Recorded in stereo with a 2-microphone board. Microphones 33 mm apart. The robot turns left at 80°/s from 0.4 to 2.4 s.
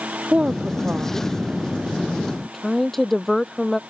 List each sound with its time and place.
0.3 s a woman speaking: 25° right (ahead or behind); by 3.8 s 5° left (ahead or behind)